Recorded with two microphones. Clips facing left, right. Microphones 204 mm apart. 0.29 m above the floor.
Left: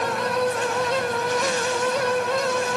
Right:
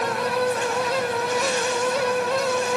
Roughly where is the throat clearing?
I don't hear throat clearing.